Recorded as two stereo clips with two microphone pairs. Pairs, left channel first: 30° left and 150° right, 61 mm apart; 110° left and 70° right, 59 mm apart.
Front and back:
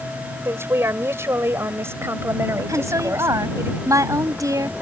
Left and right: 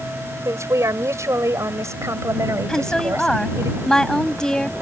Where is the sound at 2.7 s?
170° right.